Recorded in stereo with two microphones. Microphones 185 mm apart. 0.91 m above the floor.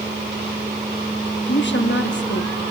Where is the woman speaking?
70° left (ahead or behind), 1.3 m.